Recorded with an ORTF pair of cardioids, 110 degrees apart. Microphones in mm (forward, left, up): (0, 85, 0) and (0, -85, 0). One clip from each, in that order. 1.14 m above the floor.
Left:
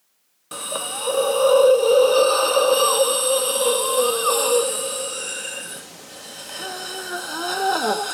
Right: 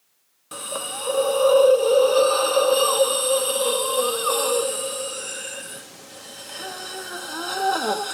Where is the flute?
No flute in this recording.